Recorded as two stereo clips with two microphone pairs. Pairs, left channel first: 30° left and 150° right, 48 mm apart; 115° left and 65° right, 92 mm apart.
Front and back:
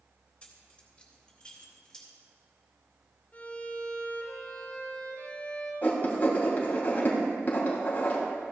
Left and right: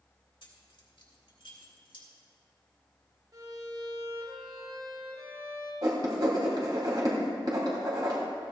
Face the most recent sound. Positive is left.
turn(degrees=-25)